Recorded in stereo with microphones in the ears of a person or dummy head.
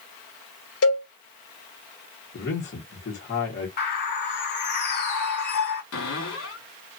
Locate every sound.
0.8 s a cowbell: 70° left (ahead or behind), 1.3 m
2.3 s a man speaking: 50° left (ahead or behind), 1.5 m
3.8 s a bird: 55° left (ahead or behind), 1.2 m
5.9 s a cupboard door: 80° left, 2 m